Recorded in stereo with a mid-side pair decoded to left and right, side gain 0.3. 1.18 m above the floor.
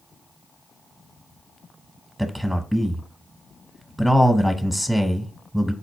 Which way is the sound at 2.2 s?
5° right.